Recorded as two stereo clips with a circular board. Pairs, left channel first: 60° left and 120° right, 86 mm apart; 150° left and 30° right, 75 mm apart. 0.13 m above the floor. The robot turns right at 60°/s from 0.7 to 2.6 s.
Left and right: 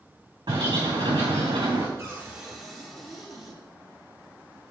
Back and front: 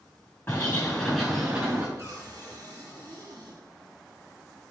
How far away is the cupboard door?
About 3.5 m.